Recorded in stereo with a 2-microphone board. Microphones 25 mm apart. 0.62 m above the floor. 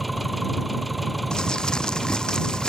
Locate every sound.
0.0 s an engine running: centre (ahead or behind)
1.3 s crumpling: 35° left (ahead or behind)